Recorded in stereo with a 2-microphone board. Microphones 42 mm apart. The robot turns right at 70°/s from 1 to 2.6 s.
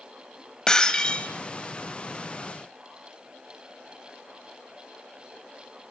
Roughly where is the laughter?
No laughter in this recording.